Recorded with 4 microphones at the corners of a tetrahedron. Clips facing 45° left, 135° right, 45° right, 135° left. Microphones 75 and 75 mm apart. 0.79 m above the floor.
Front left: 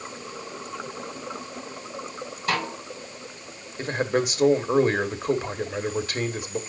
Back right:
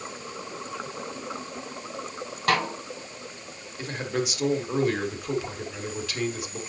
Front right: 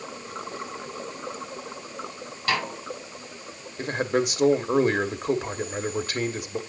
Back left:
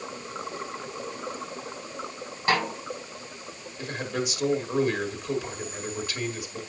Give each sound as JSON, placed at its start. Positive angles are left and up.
{"t": 2.5, "sound": "a snare drum", "azimuth_deg": -160, "distance_m": 4.0}
{"t": 3.8, "sound": "a man speaking", "azimuth_deg": -5, "distance_m": 1.3}